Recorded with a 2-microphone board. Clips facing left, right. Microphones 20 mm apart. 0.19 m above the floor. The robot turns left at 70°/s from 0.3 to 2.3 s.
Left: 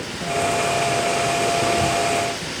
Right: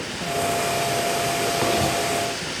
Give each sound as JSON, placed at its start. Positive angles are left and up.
{"t": 1.6, "sound": "writing", "side_deg": -80, "distance_m": 3.5}